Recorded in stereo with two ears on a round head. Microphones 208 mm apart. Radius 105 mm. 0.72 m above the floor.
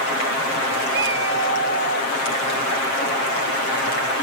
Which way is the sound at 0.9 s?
60° right (ahead or behind).